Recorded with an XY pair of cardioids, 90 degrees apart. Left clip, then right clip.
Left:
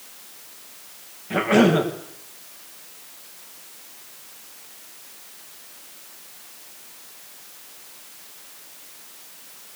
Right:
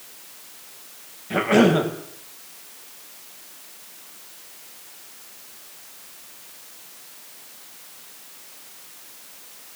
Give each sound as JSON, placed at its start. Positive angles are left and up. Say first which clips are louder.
{"t": 1.3, "sound": "a cough", "louder": "even", "azimuth_deg": -5, "distance_m": 7.0}